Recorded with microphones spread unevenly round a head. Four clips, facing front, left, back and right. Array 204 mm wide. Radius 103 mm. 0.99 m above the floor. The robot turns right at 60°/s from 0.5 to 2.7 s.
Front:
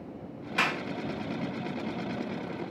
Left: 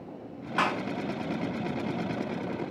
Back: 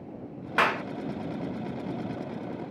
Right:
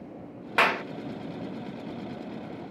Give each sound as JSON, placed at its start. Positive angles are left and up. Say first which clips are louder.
{"t": 0.6, "sound": "a clap", "louder": "right 3 dB, back 5 dB", "azimuth_deg": -125}